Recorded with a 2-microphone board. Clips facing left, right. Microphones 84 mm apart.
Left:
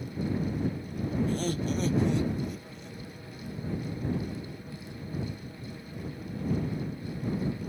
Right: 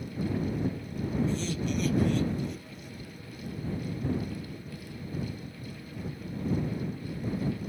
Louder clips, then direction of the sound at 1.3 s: Left 1 dB; 50° left (ahead or behind).